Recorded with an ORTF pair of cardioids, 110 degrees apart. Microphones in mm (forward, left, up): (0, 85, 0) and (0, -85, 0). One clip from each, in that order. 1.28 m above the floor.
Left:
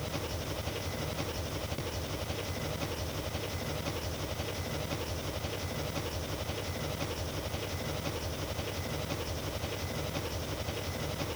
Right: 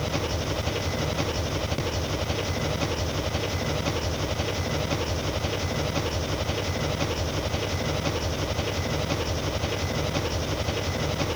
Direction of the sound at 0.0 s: 55° right.